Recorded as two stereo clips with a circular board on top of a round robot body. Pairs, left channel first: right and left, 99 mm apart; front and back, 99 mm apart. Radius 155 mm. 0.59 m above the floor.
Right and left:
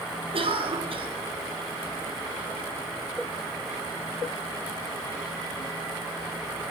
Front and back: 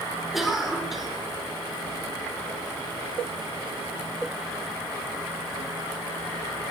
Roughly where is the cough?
Left.